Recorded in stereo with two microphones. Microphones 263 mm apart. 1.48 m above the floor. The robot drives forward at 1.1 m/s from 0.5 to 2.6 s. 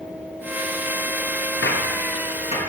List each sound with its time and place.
1.6 s a gunshot: 50° left (ahead or behind), 0.7 m; by 2.6 s 25° left (ahead or behind), 1.4 m